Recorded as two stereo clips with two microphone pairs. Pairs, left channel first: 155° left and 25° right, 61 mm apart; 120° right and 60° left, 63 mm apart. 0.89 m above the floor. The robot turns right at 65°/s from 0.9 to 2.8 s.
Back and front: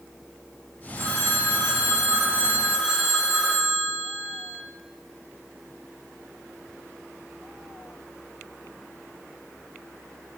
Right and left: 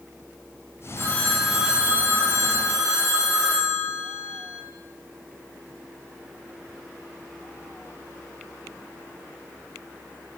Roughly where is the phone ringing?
Ahead right.